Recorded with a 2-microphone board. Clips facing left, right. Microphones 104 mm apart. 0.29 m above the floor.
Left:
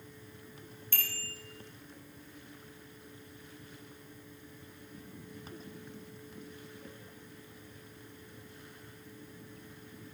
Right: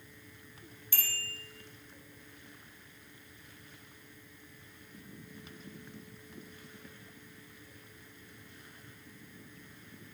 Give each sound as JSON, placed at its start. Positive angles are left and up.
{"t": 0.9, "sound": "a bicycle bell", "side_deg": -5, "distance_m": 6.0}